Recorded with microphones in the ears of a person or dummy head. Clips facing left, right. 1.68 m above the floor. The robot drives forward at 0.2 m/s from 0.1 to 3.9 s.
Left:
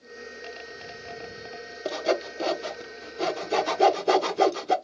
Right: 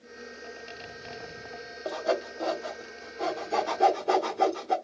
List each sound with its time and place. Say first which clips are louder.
1.9 s sawing: left 2 dB; 40° left (ahead or behind), 0.8 m